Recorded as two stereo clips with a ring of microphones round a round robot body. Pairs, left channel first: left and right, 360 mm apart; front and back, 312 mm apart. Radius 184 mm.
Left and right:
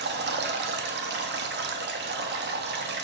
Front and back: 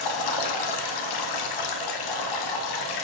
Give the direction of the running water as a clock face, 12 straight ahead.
1 o'clock.